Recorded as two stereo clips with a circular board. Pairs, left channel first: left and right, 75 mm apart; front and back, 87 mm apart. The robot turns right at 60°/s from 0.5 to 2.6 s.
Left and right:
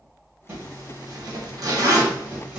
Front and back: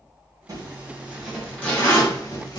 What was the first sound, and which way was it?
A zipper, 140° right.